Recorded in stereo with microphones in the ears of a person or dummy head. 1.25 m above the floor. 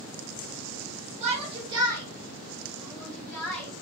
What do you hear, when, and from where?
1.2 s a shout: 40° right (ahead or behind), 1.4 m; by 3.7 s 20° left (ahead or behind), 1.5 m